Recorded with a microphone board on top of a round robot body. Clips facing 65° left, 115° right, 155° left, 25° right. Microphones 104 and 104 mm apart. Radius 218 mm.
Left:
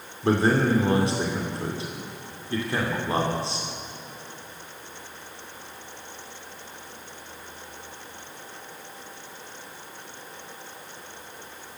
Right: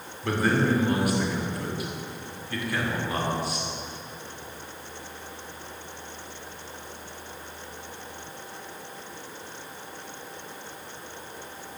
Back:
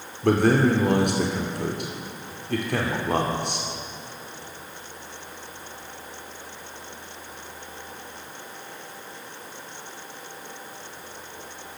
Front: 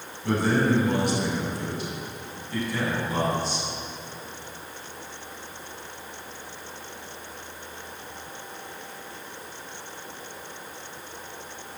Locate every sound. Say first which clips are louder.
0.2 s a man speaking: left 3 dB, back 4 dB; 130° left, 3 m